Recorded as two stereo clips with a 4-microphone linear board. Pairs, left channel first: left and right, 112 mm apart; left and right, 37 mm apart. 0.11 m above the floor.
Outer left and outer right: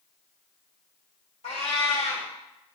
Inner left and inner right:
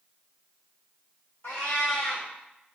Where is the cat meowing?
70° left (ahead or behind), 1.5 m.